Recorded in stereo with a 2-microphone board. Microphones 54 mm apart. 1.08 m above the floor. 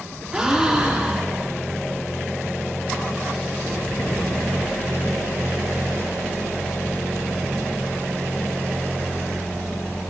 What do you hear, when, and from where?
0.3 s a gasp: 15° right (ahead or behind), 1.5 m